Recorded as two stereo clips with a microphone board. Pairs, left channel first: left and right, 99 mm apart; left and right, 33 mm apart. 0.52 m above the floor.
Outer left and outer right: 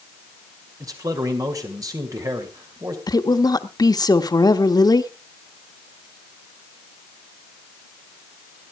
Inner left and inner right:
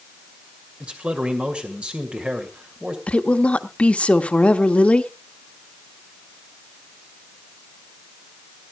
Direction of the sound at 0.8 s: 35° right (ahead or behind).